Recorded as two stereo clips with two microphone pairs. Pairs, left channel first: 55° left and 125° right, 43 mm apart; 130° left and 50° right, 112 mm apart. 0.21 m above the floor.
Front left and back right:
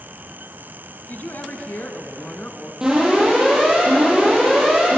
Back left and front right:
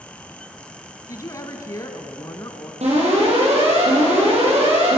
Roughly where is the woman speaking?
Left.